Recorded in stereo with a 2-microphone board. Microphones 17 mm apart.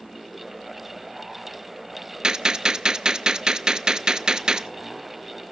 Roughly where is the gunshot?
Right.